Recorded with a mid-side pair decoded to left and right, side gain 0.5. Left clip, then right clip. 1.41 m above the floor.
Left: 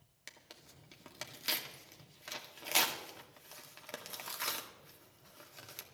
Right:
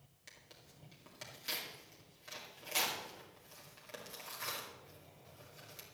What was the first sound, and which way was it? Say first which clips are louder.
Tearing paper: left 4 dB; 55° left.